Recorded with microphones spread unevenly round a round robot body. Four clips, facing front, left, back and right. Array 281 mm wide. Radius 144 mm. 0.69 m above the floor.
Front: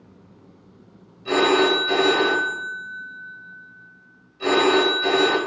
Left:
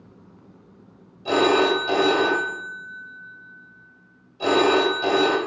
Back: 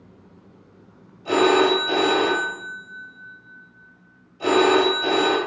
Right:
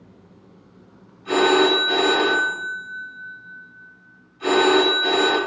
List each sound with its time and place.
1.2 s a phone ringing: 100° left, 2.5 m